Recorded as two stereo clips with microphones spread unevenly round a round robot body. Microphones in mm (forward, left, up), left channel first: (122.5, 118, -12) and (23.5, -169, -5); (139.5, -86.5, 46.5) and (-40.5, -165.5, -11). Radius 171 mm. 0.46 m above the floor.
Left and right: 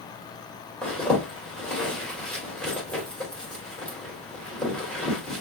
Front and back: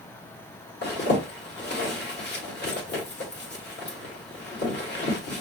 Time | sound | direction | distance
0.8 | a zipper | 15° right | 1.9 m